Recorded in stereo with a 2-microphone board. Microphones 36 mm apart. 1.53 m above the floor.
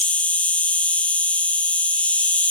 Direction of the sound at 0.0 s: 45° left (ahead or behind).